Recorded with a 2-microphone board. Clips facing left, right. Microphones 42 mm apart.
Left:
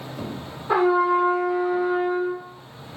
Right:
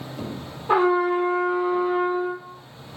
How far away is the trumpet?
About 1.3 m.